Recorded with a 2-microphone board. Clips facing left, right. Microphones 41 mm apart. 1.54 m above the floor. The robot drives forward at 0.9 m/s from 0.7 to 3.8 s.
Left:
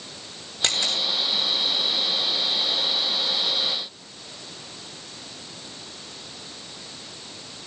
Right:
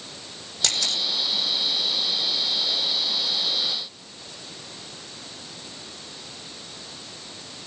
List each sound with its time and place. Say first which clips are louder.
0.6 s a camera shutter: left 1 dB; 35° left (ahead or behind), 6 m